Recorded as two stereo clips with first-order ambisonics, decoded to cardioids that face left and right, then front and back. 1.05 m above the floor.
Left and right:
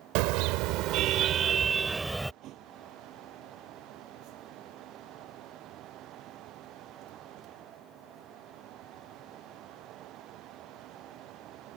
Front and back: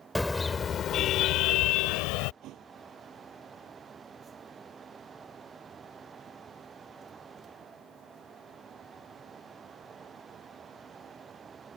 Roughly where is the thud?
Behind right.